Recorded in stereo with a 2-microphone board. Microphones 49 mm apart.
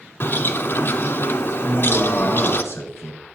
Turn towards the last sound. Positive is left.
turn(degrees=65)  # may be behind; listen again after turning